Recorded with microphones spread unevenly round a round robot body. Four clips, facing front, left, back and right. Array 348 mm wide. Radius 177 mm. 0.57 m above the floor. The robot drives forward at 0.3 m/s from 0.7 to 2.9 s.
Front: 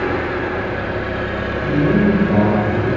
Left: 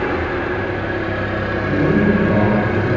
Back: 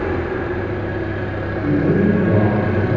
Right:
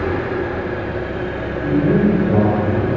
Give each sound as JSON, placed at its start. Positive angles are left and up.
{"t": 0.0, "sound": "an engine running", "azimuth_deg": 35, "distance_m": 0.8}
{"t": 1.6, "sound": "a man speaking", "azimuth_deg": -140, "distance_m": 1.0}